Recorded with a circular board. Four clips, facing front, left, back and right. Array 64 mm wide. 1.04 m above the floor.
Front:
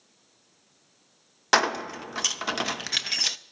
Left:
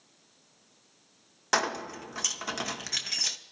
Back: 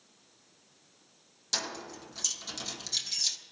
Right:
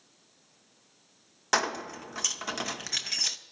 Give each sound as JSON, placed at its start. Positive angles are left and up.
{"t": 1.5, "sound": "keys jangling", "azimuth_deg": 0, "distance_m": 0.7}